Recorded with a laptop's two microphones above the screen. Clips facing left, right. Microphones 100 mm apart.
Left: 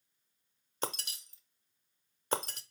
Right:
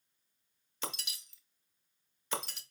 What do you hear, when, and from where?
0.8 s breaking glass: 45° left (ahead or behind), 0.7 m